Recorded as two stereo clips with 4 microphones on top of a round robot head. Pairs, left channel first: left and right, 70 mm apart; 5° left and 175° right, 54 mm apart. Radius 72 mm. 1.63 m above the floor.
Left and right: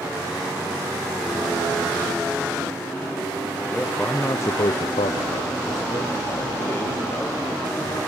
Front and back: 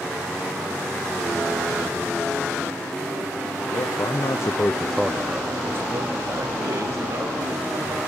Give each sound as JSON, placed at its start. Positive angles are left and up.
{"t": 3.7, "sound": "a man speaking", "azimuth_deg": 15, "distance_m": 1.5}